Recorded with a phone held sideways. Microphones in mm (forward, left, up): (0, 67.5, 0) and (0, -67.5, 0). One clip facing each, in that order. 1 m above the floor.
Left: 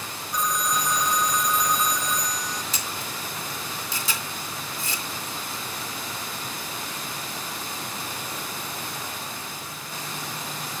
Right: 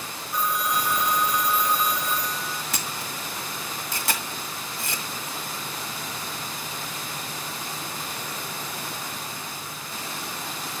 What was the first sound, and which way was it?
A phone ringing, 5° right (ahead or behind).